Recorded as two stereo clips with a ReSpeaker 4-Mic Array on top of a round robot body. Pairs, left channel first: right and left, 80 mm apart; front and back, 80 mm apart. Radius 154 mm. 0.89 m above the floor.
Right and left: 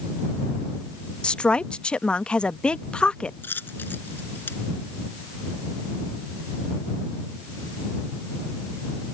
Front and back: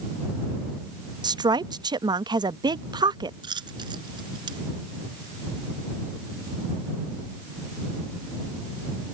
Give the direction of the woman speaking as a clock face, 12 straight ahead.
6 o'clock.